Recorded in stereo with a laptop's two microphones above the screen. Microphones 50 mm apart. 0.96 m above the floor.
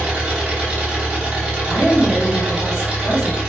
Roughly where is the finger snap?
No finger snap in this recording.